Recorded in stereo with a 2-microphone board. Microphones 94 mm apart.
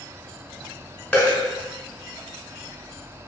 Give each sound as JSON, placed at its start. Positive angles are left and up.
{"t": 1.1, "sound": "a dropped coin", "side_deg": 15, "distance_m": 0.9}